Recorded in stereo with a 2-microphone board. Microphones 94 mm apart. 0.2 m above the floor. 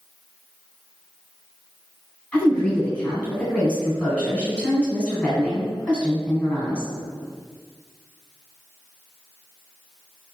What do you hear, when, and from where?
2.3 s a woman speaking: 15° left (ahead or behind), 1.3 m